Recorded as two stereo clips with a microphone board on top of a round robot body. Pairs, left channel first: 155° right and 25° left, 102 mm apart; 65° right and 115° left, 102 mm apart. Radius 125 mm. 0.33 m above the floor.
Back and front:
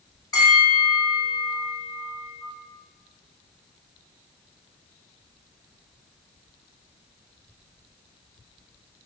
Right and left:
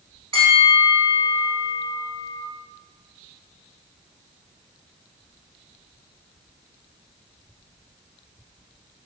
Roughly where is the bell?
Behind left.